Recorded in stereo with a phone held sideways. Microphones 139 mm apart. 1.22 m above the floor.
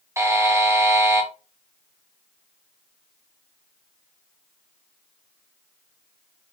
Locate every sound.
0.2 s a buzzer: 20° right (ahead or behind), 0.8 m